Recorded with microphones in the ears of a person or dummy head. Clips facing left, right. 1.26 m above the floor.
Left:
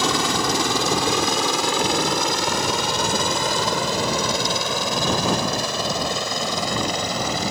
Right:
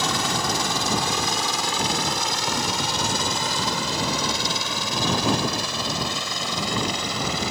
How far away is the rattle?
No rattle in this recording.